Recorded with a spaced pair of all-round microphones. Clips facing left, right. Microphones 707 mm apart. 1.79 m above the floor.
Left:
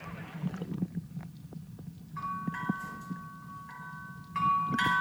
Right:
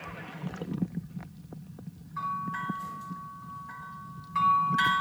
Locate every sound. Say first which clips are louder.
2.2 s a bell: left 2 dB; 65° right (ahead or behind), 2 m